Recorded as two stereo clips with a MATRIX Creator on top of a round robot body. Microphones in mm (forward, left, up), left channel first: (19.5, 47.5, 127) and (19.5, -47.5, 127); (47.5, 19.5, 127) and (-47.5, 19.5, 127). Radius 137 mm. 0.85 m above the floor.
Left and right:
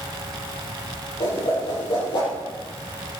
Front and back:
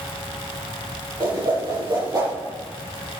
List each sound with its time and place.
1.2 s a whoosh: 130° left, 7.5 m